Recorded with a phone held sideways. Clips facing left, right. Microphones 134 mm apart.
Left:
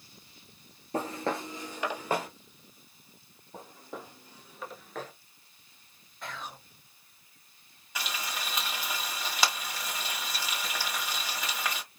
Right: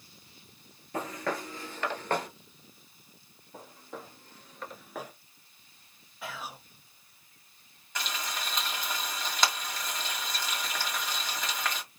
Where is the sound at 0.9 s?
35° left (ahead or behind), 1.2 m; by 2.3 s 5° left (ahead or behind), 1.3 m.